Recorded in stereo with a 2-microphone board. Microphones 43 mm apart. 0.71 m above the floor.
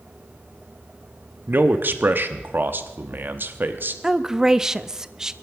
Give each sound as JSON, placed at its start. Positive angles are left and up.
{"t": 1.5, "sound": "a man speaking", "side_deg": -50, "distance_m": 1.1}
{"t": 4.0, "sound": "a woman speaking", "side_deg": -15, "distance_m": 0.5}